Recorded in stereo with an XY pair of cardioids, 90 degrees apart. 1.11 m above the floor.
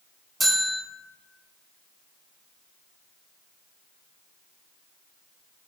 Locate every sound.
0.4 s a bell: 20° right, 1.4 m